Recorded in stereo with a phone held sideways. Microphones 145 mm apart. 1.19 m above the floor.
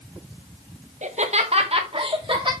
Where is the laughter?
55° right (ahead or behind), 0.9 m; by 2.5 s 35° right (ahead or behind), 1.8 m.